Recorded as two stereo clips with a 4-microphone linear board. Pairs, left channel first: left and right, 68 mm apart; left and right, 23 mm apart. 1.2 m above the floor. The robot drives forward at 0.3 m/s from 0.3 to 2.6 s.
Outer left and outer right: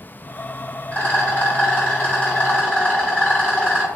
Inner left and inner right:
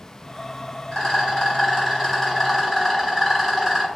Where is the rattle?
25° left (ahead or behind), 1.7 m; by 3.9 s 20° left (ahead or behind), 2 m.